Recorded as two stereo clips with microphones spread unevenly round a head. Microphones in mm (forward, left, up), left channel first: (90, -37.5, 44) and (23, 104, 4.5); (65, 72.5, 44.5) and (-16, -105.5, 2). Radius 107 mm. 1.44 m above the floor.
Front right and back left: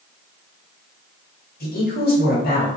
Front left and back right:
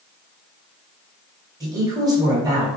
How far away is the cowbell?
I don't hear a cowbell.